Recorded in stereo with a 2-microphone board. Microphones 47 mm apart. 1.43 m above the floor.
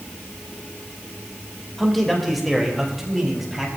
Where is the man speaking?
5° left (ahead or behind), 2.5 m; by 3.7 s 5° right (ahead or behind), 4 m.